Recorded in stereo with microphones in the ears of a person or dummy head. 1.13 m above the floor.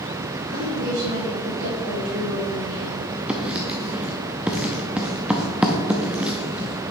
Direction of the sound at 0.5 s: 60° right (ahead or behind).